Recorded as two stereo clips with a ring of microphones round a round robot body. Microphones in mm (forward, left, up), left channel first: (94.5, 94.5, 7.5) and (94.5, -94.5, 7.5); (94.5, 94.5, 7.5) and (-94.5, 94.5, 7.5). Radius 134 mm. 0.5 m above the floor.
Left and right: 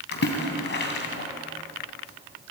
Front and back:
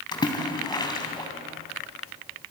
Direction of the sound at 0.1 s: 70° left.